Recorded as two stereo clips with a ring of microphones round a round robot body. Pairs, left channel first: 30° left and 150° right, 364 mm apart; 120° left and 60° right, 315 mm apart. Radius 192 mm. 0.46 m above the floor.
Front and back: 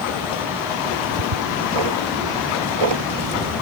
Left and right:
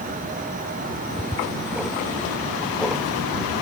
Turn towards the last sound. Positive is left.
turn(degrees=-150)